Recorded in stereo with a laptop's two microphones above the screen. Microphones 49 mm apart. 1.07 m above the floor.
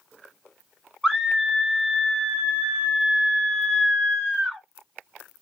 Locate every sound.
1.0 s a scream: 15° right (ahead or behind), 1.8 m